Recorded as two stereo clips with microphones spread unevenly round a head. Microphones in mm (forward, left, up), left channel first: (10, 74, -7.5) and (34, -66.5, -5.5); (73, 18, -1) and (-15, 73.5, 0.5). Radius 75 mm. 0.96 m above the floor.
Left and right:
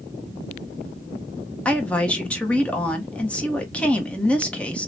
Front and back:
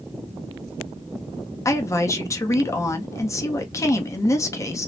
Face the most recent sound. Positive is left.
turn(degrees=20)